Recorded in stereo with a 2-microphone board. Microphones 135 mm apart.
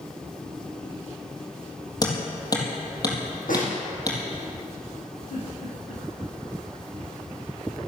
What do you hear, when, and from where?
2.0 s hammering: 30° left (ahead or behind), 4 m
3.5 s a snare drum: 80° left, 5 m
5.3 s a giggle: 75° left (ahead or behind), 7 m